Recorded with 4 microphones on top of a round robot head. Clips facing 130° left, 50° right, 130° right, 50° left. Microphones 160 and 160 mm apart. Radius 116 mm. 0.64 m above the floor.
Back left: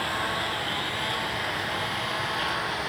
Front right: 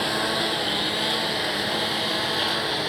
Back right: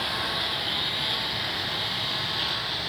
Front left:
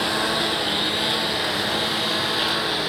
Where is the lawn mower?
5° left; by 2.9 s 10° left.